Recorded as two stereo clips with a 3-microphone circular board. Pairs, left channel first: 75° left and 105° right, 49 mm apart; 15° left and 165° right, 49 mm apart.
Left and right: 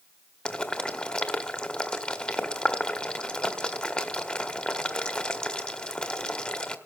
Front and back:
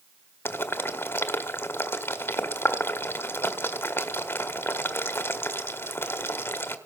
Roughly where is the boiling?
Ahead.